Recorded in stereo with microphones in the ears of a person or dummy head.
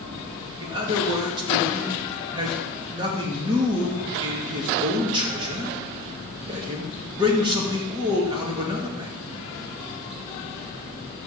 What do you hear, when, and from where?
0.6 s a man speaking: 25° right (ahead or behind), 2.0 m